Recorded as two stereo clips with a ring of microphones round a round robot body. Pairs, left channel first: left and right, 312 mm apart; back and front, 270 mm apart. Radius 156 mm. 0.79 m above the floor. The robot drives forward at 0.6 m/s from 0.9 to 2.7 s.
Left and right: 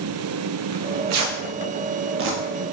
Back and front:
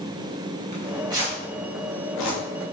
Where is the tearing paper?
60° right, 0.7 m; by 2.4 s 140° right, 0.9 m.